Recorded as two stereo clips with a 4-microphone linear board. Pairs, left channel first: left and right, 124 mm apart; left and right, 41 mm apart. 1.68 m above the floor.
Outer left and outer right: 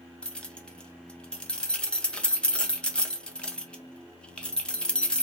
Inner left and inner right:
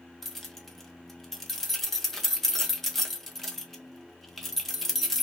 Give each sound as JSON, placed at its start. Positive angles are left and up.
{"t": 0.2, "sound": "keys jangling", "side_deg": 5, "distance_m": 0.7}